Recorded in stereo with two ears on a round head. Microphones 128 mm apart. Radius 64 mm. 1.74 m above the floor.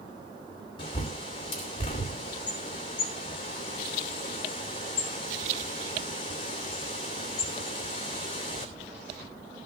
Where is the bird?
35° left (ahead or behind), 2.5 m.